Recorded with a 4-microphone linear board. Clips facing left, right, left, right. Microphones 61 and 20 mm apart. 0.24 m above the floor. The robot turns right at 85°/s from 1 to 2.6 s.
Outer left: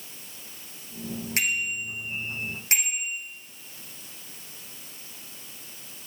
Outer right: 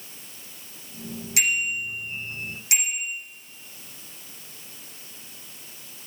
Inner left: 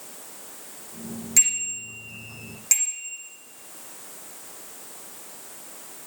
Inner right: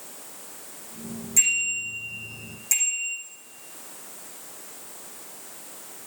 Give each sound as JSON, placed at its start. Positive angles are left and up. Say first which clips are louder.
{"t": 1.4, "sound": "a bicycle bell", "louder": "outer right 3 dB, inner right 1 dB", "side_deg": 35, "distance_m": 9.0}